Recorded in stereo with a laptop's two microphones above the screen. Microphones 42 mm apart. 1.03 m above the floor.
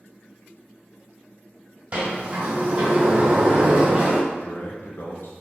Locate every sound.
1.9 s a sliding door: 40° right (ahead or behind), 1.5 m
4.3 s a man speaking: 50° left (ahead or behind), 0.7 m